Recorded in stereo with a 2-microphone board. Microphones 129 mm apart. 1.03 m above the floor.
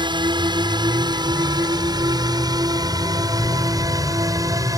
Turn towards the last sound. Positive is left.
turn(degrees=-25)  # may be behind; listen again after turning